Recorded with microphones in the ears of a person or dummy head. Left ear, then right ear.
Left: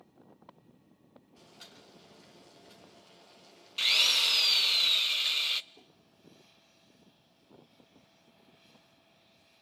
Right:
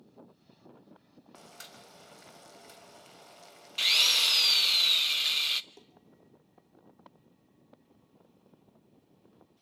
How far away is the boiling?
About 3 m.